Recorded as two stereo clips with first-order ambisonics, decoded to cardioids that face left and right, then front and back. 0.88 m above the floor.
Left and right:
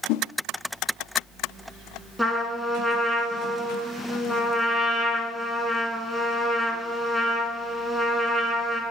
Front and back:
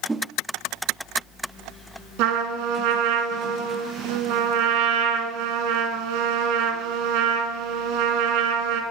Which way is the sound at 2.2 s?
Straight behind.